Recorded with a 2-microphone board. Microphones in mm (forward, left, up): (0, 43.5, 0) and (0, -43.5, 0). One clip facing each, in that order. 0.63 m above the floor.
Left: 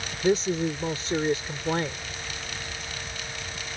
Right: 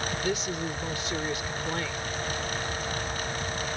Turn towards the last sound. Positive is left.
turn(degrees=35)  # may be behind; listen again after turning